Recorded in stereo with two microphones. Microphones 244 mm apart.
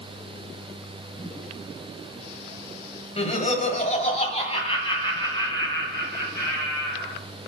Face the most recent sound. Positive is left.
turn(degrees=15)  # may be behind; listen again after turning